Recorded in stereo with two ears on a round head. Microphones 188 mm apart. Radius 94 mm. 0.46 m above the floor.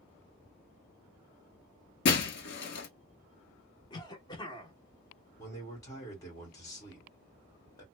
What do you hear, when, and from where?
2.0 s breaking glass: 55° left (ahead or behind), 0.8 m
3.9 s a cough: 20° left (ahead or behind), 0.8 m
5.4 s a man speaking: 15° left (ahead or behind), 1.5 m